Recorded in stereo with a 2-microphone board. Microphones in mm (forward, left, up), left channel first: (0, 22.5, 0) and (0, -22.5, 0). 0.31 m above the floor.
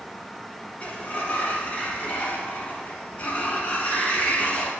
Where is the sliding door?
30° left (ahead or behind), 1.2 m.